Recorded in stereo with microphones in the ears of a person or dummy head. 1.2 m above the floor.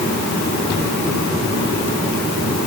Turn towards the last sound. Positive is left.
No sound to turn to.